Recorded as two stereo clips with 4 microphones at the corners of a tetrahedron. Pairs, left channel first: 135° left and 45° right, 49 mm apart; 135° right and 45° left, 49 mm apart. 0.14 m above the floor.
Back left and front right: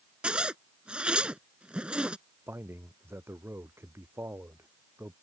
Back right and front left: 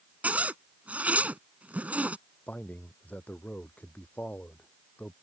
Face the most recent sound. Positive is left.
turn(degrees=-80)